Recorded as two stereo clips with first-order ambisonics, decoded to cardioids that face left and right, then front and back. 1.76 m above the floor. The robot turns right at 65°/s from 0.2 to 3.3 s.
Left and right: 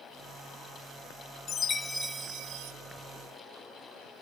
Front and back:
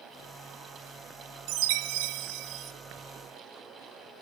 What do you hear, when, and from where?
1.5 s a chime: 155° left, 1.0 m; by 2.7 s 125° right, 1.0 m